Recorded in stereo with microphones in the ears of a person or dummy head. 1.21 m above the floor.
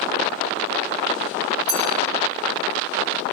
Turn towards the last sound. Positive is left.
turn(degrees=-30)  # may be behind; listen again after turning